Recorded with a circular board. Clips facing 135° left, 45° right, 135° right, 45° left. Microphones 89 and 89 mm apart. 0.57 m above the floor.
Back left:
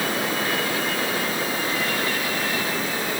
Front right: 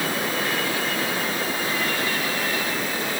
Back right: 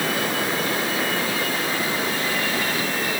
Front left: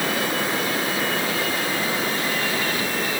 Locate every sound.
Only background noise.